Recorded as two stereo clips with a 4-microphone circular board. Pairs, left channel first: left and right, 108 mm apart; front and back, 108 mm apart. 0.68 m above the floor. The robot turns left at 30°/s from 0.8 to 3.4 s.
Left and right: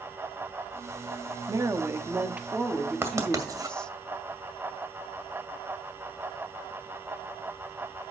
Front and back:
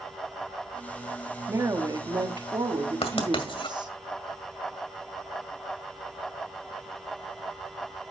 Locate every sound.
1.5 s a woman speaking: 135° right, 1.2 m; by 3.9 s 170° left, 1.2 m
3.0 s writing: 25° right, 2.0 m; by 3.8 s 35° right, 2.0 m